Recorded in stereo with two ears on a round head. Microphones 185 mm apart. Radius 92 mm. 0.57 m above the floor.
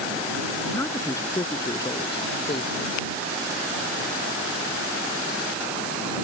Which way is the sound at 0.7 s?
10° left (ahead or behind).